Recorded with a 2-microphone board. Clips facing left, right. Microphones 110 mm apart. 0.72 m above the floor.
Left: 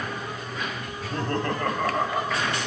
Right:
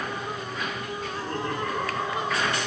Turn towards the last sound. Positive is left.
turn(degrees=70)  # may be behind; listen again after turning